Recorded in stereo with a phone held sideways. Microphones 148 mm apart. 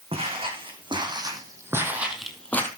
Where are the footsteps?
40° right (ahead or behind), 4.5 m; by 2.7 s 15° left (ahead or behind), 2.5 m.